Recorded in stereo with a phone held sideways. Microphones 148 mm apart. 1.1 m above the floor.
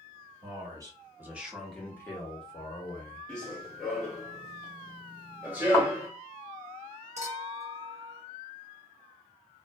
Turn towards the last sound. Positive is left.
turn(degrees=-50)  # may be behind; listen again after turning